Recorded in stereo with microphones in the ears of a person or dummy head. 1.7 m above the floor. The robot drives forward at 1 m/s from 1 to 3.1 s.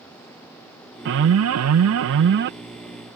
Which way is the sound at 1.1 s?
65° right (ahead or behind).